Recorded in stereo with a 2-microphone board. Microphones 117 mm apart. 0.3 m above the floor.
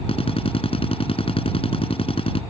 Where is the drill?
55° left (ahead or behind).